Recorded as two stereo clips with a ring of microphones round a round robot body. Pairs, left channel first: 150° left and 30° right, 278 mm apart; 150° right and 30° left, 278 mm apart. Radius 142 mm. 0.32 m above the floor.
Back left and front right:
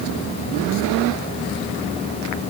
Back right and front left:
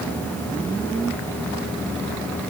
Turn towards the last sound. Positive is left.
No sound to turn to.